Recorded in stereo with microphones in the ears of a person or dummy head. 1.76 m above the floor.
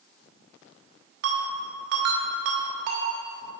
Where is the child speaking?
No child speaking in this recording.